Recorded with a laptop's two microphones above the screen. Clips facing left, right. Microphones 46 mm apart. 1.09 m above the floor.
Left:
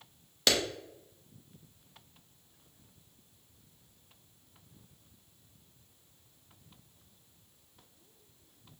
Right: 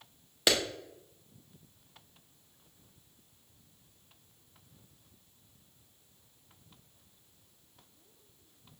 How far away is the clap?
About 0.6 m.